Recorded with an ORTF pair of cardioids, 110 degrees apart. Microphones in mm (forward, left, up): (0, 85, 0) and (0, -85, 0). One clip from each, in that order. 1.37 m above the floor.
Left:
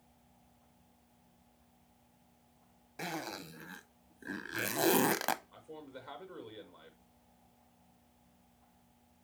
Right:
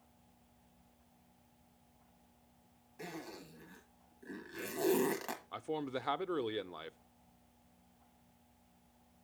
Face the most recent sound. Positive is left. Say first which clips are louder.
# right 10 dB
turn(degrees=-65)